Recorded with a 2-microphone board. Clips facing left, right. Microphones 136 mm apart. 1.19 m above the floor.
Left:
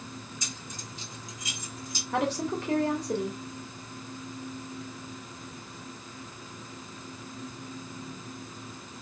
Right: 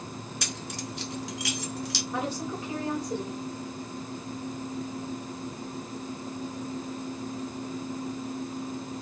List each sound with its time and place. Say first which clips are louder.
0.4 s keys jangling: right 6 dB; 70° right (ahead or behind), 0.6 m; by 2.0 s 80° right, 1.6 m
2.1 s a woman speaking: left 5 dB; 85° left, 2 m